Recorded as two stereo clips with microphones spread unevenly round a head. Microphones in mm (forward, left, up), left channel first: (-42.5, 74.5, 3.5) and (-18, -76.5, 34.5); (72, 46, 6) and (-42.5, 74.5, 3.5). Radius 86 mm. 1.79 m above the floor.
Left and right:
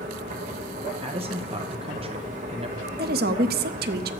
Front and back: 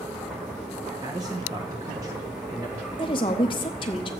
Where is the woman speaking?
70° right, 0.6 m.